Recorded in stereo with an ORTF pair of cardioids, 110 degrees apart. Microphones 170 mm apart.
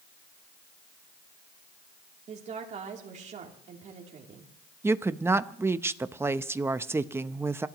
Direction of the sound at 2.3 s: 45° right.